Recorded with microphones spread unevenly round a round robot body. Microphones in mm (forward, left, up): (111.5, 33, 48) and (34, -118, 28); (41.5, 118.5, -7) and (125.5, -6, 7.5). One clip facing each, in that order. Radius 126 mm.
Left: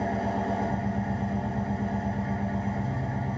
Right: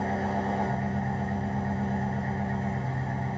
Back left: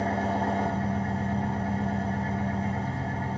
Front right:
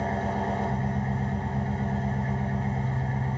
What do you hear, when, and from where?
0.0 s an engine running: 160° left, 0.8 m